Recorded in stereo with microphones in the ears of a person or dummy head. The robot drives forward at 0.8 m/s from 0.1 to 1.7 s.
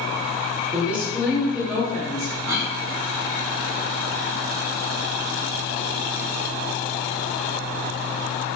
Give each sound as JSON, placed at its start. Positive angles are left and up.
{"t": 0.7, "sound": "a woman speaking", "side_deg": -5, "distance_m": 1.4}
{"t": 2.5, "sound": "a cough", "side_deg": -15, "distance_m": 2.0}